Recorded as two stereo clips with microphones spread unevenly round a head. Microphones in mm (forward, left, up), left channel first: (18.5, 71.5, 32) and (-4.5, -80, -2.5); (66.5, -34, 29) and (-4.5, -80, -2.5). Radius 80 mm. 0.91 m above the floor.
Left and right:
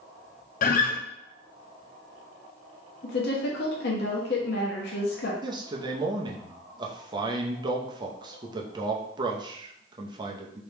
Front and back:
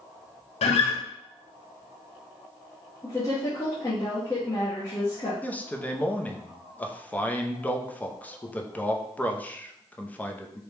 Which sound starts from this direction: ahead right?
A man speaking, at 5.4 s.